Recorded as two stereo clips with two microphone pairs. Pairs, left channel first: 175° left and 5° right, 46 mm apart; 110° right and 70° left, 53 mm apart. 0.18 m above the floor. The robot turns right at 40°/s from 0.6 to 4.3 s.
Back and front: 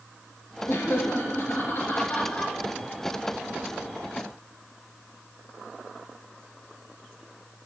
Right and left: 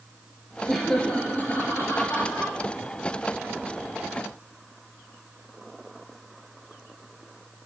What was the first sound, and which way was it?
Laughter, 165° left.